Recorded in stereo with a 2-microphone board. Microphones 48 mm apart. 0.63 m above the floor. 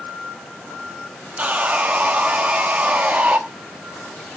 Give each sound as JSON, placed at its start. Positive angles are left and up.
{"t": 1.4, "sound": "sawing", "side_deg": -35, "distance_m": 1.0}